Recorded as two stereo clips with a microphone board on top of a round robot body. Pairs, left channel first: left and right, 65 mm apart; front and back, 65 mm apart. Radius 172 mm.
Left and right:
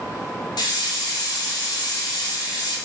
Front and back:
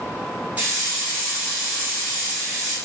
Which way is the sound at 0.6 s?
110° left.